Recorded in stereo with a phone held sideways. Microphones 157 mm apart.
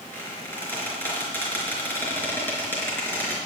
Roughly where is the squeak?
Centre.